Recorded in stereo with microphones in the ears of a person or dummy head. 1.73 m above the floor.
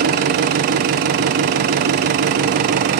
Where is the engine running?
35° right (ahead or behind), 0.7 m.